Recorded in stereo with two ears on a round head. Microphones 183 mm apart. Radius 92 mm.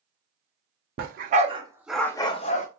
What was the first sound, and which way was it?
A dog barking, 50° right (ahead or behind).